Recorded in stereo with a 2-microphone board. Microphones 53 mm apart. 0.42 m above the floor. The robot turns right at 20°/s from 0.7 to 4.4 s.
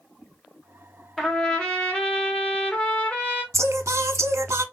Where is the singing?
65° right (ahead or behind), 0.5 m.